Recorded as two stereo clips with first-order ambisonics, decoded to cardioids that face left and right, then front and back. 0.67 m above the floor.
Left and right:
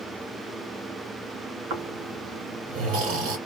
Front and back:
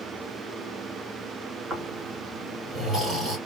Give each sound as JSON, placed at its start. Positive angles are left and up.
{"t": 1.7, "sound": "snoring", "azimuth_deg": -105, "distance_m": 1.5}